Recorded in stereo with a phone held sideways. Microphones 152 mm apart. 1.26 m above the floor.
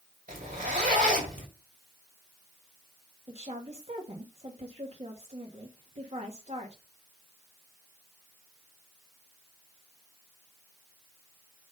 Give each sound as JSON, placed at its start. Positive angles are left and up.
{"t": 0.3, "sound": "a zipper", "side_deg": -70, "distance_m": 2.0}
{"t": 3.3, "sound": "a woman speaking", "side_deg": -45, "distance_m": 1.5}